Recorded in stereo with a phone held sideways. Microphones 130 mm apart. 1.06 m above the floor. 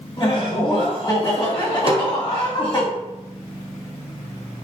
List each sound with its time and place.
0.2 s laughter: 35° left (ahead or behind), 1.3 m
1.9 s a snare drum: 45° right (ahead or behind), 0.5 m